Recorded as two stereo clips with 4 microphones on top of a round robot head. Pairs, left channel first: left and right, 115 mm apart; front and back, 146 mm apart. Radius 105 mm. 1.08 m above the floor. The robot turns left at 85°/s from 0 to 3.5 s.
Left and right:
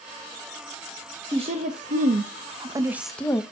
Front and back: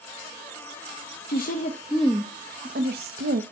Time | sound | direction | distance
1.3 | a woman speaking | 25° right | 0.8 m